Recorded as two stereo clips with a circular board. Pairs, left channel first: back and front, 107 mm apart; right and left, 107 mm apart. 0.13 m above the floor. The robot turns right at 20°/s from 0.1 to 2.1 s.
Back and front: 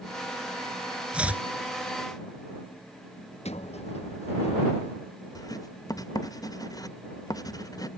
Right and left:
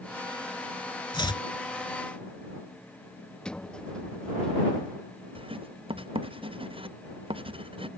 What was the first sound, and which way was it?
Chopping, 75° right.